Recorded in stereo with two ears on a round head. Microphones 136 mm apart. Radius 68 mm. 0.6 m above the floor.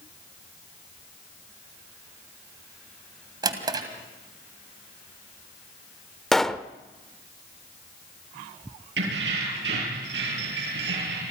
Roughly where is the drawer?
Right.